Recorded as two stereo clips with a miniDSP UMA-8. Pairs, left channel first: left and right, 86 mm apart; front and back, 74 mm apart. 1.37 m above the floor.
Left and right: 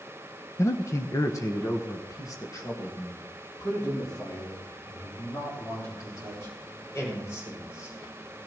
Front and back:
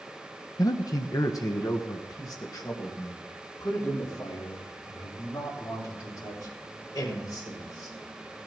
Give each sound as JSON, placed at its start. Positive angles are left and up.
{"t": 0.6, "sound": "a man speaking", "azimuth_deg": 30, "distance_m": 0.5}